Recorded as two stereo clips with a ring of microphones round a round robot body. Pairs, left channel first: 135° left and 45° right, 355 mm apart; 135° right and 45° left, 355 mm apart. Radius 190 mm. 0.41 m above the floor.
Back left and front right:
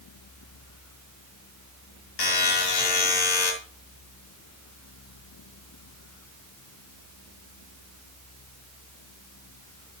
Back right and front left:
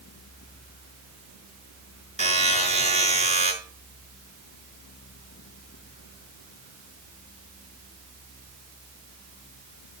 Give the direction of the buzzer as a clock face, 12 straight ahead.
7 o'clock.